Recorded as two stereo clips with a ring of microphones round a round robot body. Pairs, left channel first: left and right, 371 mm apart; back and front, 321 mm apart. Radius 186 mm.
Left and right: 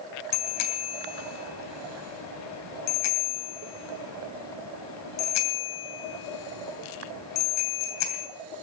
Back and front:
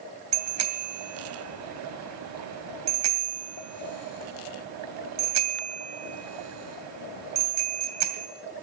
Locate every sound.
0.3 s a bicycle bell: 40° left, 2.5 m